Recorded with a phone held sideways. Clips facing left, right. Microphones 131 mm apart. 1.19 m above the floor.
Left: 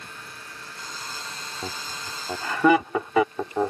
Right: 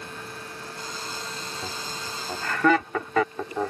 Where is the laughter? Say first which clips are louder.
Even; 15° left (ahead or behind).